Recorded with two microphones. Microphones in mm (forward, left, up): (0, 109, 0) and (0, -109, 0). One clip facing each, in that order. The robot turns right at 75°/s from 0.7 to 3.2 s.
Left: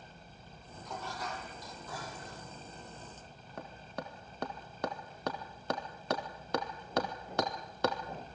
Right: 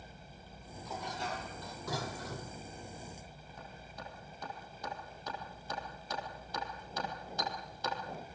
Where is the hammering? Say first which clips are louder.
Left 8 dB; 65° left (ahead or behind), 2 m.